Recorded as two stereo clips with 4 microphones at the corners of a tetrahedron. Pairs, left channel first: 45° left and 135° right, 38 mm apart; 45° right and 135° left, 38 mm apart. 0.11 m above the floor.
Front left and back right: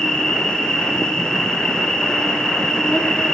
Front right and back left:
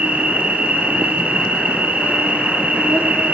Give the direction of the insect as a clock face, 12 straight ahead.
8 o'clock.